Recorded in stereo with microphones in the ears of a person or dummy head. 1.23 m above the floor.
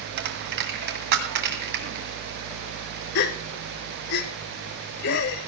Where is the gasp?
65° left (ahead or behind), 1.4 m.